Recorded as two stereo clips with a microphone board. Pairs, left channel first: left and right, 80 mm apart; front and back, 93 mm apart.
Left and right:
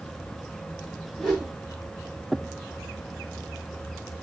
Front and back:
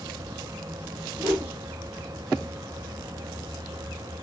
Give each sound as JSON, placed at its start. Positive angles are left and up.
{"t": 1.2, "sound": "a whoosh", "azimuth_deg": 170, "distance_m": 1.9}